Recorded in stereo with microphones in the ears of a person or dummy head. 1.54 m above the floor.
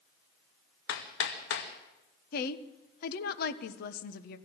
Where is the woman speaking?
60° left (ahead or behind), 1.3 m.